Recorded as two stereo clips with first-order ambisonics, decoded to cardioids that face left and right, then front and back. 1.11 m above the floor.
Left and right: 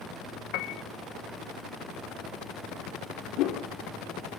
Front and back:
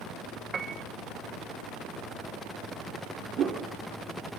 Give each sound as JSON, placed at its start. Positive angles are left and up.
{"t": 0.5, "sound": "a piano", "azimuth_deg": 110, "distance_m": 1.0}
{"t": 3.4, "sound": "a whoosh", "azimuth_deg": 125, "distance_m": 2.0}